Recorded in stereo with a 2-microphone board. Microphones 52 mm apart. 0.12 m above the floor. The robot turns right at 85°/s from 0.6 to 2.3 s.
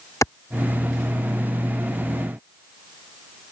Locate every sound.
0.2 s a clap: 75° left (ahead or behind)